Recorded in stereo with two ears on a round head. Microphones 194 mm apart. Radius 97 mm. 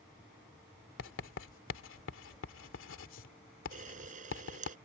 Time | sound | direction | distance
1.0 | writing | 65° left (ahead or behind) | ?
3.7 | a camera shutter | 40° right (ahead or behind) | ?